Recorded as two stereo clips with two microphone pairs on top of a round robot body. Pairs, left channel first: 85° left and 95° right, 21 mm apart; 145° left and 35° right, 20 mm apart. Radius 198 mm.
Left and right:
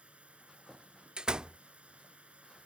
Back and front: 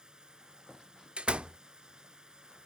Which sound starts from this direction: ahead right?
A door slam, at 1.2 s.